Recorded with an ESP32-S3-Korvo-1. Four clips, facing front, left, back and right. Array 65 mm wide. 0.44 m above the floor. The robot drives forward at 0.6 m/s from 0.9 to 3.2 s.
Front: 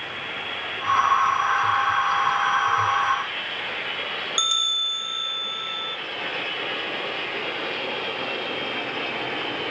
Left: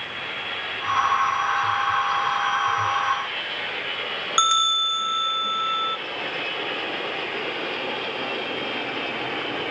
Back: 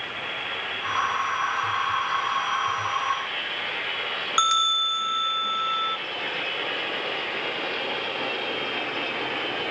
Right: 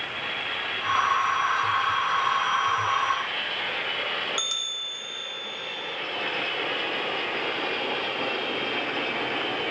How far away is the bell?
About 0.9 m.